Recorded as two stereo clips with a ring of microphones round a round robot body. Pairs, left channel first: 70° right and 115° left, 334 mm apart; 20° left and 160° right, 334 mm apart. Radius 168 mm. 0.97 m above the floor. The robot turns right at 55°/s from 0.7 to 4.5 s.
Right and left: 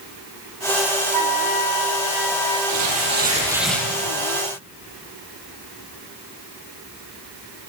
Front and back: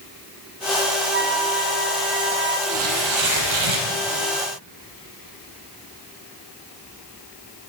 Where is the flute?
140° left, 4.5 m; by 2.6 s 140° right, 4.5 m.